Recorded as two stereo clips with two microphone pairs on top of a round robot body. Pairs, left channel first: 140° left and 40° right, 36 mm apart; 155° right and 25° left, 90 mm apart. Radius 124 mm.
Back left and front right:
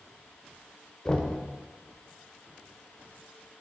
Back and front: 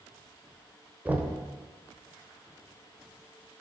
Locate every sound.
1.1 s knocking: 85° left, 1.1 m